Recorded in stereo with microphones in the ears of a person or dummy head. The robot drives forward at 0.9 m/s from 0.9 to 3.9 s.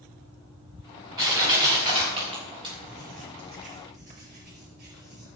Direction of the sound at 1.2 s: 20° right (ahead or behind).